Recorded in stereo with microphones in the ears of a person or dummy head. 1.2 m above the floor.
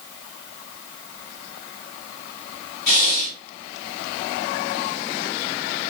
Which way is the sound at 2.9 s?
50° left (ahead or behind).